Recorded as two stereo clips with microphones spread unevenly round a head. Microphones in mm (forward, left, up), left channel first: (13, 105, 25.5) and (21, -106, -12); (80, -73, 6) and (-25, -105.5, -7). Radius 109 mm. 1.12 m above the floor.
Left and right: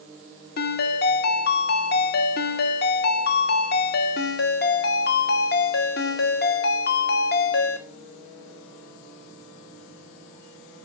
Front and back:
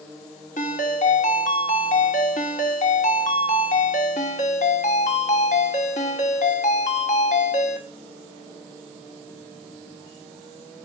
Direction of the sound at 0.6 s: 50° left.